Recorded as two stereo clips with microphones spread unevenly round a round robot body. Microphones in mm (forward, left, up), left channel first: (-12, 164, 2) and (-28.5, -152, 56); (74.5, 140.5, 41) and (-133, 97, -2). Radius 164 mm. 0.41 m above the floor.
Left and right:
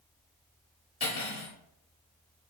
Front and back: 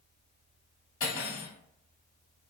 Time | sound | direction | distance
1.0 | cutlery clinking | 35° left | 1.7 m